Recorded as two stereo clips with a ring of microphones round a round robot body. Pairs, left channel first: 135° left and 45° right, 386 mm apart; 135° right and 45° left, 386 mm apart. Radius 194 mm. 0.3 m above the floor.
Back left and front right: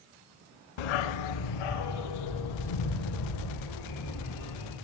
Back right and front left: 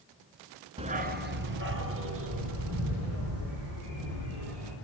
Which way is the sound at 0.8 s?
120° left.